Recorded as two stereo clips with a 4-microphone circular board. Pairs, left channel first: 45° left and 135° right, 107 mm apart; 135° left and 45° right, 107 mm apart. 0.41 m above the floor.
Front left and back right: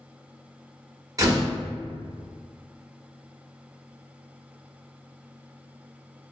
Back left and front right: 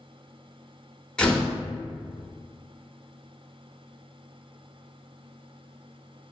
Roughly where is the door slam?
Behind right.